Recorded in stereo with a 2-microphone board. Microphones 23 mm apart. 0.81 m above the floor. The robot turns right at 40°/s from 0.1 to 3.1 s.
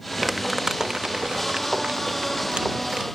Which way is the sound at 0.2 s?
5° right (ahead or behind).